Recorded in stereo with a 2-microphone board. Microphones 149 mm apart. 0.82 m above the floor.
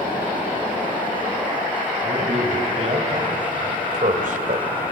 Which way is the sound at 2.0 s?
40° right (ahead or behind).